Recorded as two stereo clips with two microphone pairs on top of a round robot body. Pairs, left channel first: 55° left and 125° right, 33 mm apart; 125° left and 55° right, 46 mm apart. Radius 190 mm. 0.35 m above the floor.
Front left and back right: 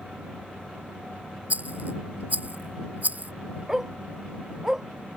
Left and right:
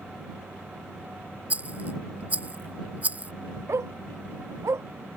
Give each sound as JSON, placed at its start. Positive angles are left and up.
{"t": 1.5, "sound": "a rattle", "azimuth_deg": -95}
{"t": 3.7, "sound": "a dog barking", "azimuth_deg": -50}